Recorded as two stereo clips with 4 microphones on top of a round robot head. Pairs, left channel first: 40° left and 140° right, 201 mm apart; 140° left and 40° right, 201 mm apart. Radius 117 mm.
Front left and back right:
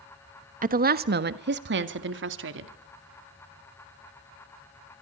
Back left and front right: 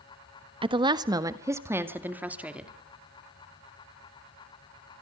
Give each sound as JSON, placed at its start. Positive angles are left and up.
{"t": 0.6, "sound": "a woman speaking", "azimuth_deg": -100, "distance_m": 1.2}